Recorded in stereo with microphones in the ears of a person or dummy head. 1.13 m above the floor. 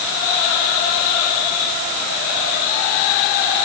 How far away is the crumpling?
I don't hear crumpling.